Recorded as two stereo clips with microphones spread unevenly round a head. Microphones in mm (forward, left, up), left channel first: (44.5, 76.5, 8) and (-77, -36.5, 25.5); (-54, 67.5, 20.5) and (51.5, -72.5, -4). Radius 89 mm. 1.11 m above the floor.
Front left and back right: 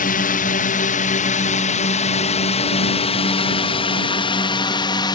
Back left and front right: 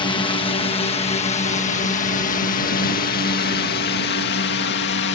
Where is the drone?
60° left; by 5.2 s 105° left.